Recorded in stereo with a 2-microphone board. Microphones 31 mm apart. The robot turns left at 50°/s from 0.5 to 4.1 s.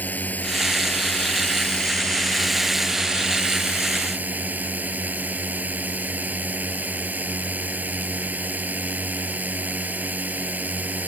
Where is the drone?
105° left; by 11.1 s 75° right.